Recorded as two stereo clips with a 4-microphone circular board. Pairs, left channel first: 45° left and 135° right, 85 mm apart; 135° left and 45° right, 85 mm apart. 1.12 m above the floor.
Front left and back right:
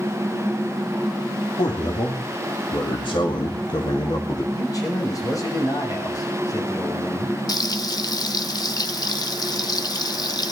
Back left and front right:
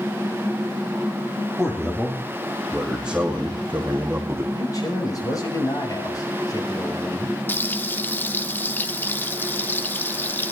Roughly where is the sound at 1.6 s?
Ahead left.